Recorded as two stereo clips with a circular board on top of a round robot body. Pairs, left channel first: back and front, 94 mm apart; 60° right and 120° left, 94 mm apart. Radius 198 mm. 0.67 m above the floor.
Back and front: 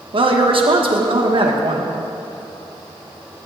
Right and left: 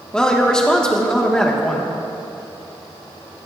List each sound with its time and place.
0.1 s a woman speaking: 20° left, 1.5 m